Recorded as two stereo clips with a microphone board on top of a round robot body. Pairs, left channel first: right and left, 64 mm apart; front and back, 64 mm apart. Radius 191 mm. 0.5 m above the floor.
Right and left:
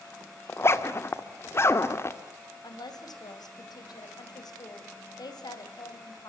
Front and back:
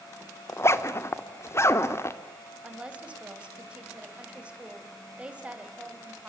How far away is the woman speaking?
About 3.5 m.